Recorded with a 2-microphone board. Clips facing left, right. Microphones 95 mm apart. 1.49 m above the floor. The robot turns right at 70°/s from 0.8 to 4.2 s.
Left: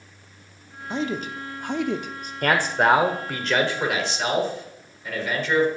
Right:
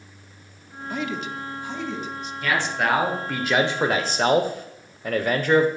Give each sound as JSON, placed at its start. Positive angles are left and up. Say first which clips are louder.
{"t": 0.9, "sound": "a man speaking", "louder": "left 2 dB", "side_deg": 25, "distance_m": 0.7}
{"t": 2.4, "sound": "a man speaking", "louder": "left 4 dB", "azimuth_deg": 115, "distance_m": 1.0}